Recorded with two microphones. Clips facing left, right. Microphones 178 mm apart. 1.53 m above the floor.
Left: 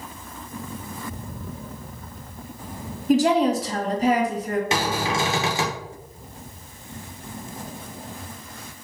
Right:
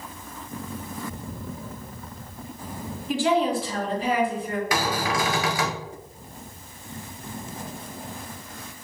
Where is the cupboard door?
25° left (ahead or behind), 0.7 m.